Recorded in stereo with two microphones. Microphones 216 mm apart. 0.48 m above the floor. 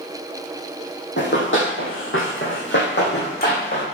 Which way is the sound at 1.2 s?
60° left (ahead or behind).